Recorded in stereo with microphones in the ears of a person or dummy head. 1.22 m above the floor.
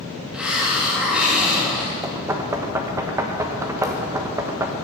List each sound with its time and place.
0.3 s a hiss: centre (ahead or behind), 2 m
2.0 s knocking: 10° right (ahead or behind), 1.2 m